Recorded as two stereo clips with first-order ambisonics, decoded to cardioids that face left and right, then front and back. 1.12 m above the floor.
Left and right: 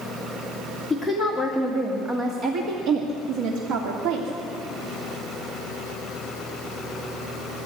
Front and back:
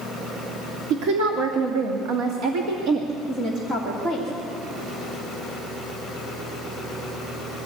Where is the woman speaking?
175° left, 2.5 m; by 4.3 s 100° right, 2.5 m.